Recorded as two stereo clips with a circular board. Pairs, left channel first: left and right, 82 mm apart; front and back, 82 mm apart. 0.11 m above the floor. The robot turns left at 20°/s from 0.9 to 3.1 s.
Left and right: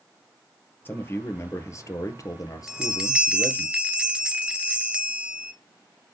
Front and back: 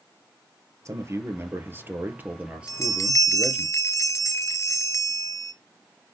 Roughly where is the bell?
Ahead.